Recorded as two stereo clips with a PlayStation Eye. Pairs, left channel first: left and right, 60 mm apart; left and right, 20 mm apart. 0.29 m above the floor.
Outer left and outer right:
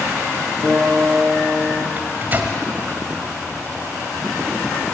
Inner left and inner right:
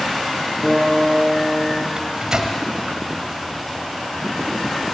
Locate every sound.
0.6 s a guitar: 30° left (ahead or behind), 4 m
2.0 s a microwave: 35° right (ahead or behind), 1.2 m